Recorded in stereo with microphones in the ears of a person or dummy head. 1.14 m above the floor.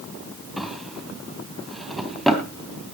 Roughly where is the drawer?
Centre.